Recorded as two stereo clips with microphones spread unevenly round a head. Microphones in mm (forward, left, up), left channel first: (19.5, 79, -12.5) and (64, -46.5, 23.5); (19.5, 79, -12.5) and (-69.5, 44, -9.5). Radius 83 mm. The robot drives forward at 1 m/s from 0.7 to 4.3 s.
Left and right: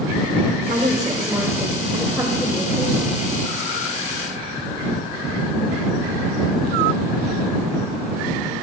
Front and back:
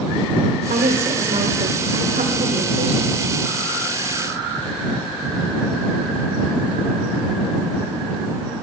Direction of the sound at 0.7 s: 140° right.